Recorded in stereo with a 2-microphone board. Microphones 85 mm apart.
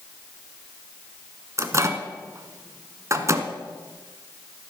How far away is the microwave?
About 1.4 m.